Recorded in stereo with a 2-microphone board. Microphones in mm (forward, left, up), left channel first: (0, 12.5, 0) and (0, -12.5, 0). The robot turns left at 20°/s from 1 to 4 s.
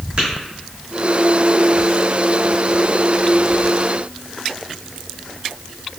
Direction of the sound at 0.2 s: 45° right (ahead or behind).